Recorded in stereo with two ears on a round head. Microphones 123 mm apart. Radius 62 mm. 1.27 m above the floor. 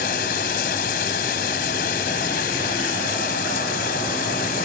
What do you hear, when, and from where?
0.0 s running water: 80° left